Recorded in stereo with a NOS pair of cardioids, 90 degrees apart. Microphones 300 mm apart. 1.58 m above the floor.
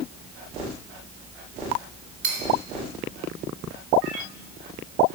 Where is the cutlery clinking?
65° right, 3.5 m.